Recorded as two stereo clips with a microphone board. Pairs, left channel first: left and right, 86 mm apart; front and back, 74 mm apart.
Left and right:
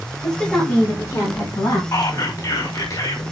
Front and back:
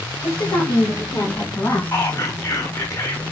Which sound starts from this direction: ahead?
A woman speaking, at 0.2 s.